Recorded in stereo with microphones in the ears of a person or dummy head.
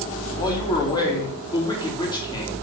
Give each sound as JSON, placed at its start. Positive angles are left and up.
{"t": 0.4, "sound": "a man speaking", "side_deg": 25, "distance_m": 2.5}